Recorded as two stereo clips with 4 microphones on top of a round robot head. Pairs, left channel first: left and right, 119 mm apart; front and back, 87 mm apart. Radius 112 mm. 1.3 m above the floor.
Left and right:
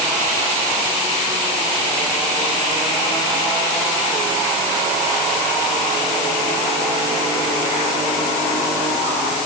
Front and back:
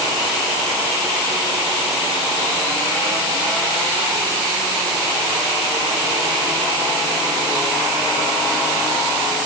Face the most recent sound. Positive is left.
No sound to turn to.